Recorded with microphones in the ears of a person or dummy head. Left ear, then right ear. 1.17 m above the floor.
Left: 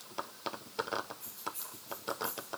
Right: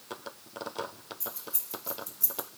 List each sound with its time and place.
1.2 s keys jangling: 50° right (ahead or behind), 1.3 m; by 2.5 s 70° right (ahead or behind), 0.7 m